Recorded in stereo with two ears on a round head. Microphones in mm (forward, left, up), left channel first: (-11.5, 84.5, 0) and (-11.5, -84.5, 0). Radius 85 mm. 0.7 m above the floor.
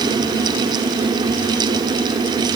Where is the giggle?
I don't hear a giggle.